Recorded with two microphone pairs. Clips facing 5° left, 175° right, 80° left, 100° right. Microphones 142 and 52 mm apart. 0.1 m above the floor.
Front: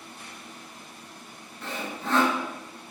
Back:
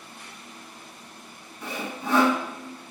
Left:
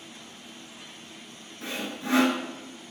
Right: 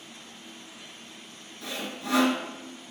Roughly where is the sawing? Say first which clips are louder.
Back 1 dB, left 2 dB; behind left.